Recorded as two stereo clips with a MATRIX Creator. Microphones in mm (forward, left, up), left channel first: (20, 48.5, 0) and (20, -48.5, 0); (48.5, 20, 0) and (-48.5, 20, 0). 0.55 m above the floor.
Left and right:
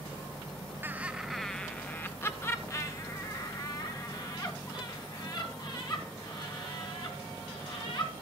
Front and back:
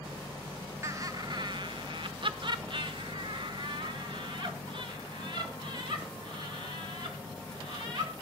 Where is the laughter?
140° right, 0.7 m; by 8.1 s 135° left, 5 m.